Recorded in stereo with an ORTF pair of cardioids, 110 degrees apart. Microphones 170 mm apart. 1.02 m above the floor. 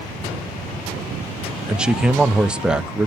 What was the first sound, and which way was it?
A man speaking, 5° right.